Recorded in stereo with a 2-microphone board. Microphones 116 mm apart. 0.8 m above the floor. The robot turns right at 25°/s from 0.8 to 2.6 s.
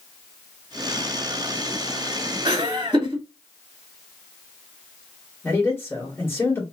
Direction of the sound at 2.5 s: 40° right (ahead or behind).